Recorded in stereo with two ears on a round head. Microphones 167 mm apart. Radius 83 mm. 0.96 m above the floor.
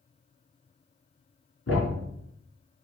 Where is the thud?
80° left, 3 m.